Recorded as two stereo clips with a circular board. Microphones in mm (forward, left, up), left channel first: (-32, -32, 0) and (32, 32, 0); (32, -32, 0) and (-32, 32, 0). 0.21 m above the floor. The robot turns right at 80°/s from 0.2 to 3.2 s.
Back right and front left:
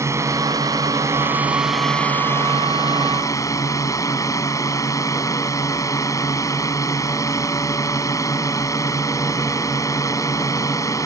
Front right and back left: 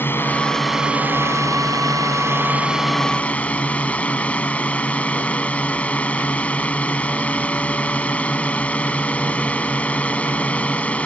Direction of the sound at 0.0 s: 10° left.